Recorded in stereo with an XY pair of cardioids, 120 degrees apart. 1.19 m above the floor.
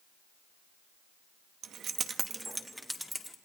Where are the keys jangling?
65° right, 1.0 m; by 3.3 s 10° left, 2 m.